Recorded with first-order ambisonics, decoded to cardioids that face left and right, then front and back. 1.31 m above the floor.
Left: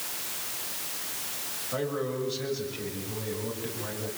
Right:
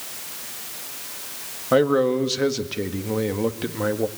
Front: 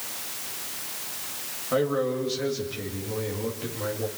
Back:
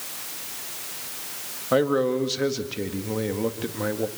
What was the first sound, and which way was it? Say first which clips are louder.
A man speaking: right 14 dB, back 4 dB; 115° right.